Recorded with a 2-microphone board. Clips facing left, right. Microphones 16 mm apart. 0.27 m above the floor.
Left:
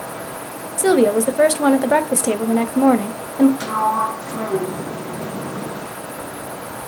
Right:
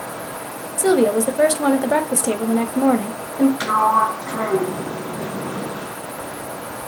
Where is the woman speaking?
15° left (ahead or behind), 1.0 m.